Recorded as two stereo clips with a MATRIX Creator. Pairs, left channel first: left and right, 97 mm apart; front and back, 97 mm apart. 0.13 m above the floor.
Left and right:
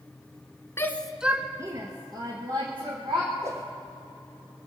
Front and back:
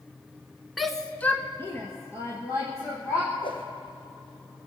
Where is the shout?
95° left, 1.1 m; by 3.3 s 60° right, 3.5 m.